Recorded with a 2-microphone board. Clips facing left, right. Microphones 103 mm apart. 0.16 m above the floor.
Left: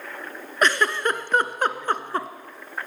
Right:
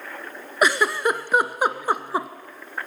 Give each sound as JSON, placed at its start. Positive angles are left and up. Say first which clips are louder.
{"t": 0.6, "sound": "a giggle", "louder": "right 1 dB", "side_deg": -10, "distance_m": 0.7}